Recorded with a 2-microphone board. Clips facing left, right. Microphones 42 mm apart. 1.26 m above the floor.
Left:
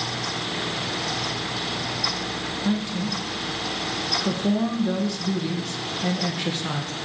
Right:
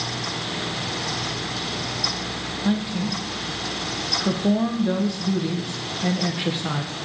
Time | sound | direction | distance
2.6 | a woman speaking | 15° right (ahead or behind) | 0.5 m